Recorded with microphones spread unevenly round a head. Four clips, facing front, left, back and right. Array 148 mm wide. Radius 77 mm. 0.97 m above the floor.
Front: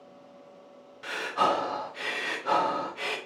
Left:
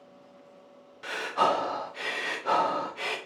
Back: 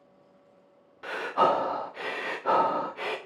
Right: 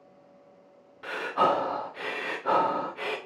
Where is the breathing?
170° left, 0.7 m.